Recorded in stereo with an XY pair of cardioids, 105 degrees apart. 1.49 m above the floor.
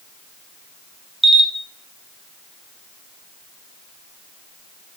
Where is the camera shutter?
15° right, 0.5 m.